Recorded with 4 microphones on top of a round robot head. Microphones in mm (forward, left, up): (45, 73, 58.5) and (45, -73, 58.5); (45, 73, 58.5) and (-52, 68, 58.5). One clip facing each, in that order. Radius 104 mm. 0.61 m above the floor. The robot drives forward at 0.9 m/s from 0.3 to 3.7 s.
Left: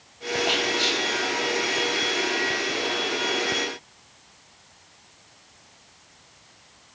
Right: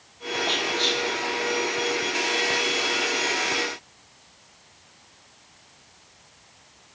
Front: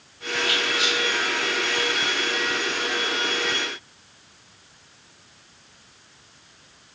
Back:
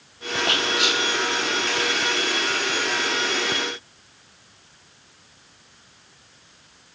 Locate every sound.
0.5 s whispering: 165° left, 0.8 m; by 1.0 s 170° left, 1.2 m